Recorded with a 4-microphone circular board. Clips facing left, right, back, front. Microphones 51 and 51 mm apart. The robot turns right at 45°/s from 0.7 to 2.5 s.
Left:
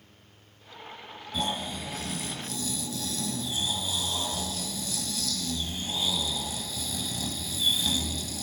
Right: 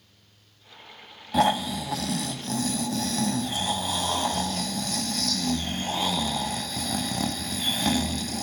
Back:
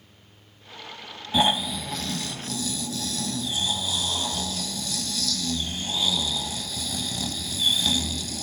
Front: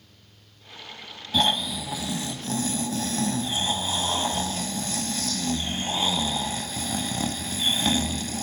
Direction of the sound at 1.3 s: 105° right.